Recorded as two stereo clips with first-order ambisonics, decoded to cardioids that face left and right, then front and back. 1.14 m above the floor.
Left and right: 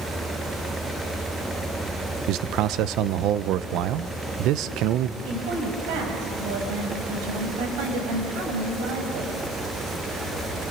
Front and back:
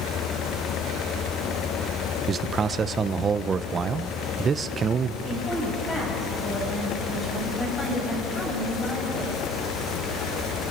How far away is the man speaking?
About 0.7 m.